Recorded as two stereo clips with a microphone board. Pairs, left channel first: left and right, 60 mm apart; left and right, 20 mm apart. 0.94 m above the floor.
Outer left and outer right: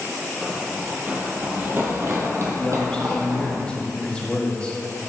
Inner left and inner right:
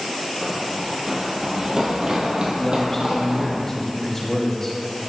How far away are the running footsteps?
About 1.2 m.